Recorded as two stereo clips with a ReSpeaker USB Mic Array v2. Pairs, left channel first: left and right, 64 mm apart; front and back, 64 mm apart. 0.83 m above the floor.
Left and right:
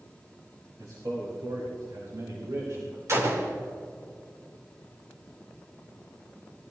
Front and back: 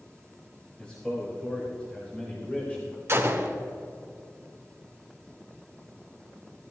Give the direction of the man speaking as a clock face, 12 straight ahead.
2 o'clock.